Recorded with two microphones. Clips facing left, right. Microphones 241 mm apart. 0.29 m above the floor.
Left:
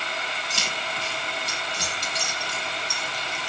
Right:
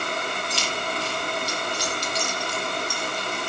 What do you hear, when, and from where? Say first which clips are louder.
0.5 s keys jangling: right 5 dB; 45° left (ahead or behind), 7 m; by 3.5 s 75° left (ahead or behind), 4.5 m